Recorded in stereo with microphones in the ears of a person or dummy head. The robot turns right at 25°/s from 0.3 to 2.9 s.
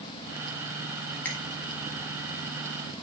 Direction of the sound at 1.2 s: 15° left (ahead or behind).